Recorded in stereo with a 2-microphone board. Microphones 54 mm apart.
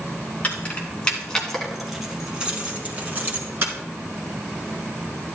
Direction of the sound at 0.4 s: 30° left (ahead or behind).